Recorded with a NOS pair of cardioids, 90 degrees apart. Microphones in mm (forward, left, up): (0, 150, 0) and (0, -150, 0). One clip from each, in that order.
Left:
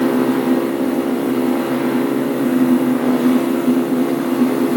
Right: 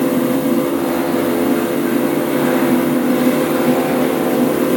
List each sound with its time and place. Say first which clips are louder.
0.0 s a fan: even; 60° right, 1.2 m